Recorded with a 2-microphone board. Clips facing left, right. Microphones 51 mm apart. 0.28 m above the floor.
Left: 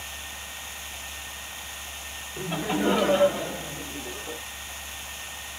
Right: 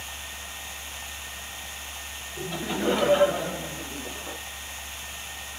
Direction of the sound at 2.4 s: 35° left (ahead or behind).